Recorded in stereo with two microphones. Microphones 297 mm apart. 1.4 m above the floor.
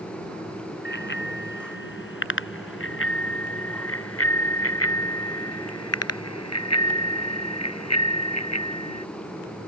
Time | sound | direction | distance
0.8 | a bicycle bell | 35° left (ahead or behind) | ?